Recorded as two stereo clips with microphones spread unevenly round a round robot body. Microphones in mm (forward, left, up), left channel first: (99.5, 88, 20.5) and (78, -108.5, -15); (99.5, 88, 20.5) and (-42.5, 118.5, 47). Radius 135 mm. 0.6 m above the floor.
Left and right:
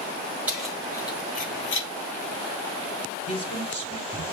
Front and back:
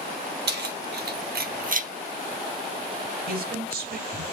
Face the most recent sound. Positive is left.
turn(degrees=160)